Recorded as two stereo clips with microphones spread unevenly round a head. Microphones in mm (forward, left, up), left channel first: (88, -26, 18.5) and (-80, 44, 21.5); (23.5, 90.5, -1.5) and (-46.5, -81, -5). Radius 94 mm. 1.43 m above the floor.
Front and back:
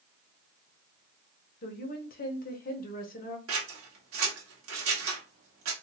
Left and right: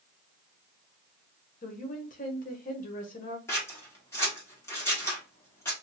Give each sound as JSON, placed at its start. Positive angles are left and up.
{"t": 1.6, "sound": "a woman speaking", "azimuth_deg": 20, "distance_m": 1.0}
{"t": 3.5, "sound": "scissors", "azimuth_deg": 145, "distance_m": 1.4}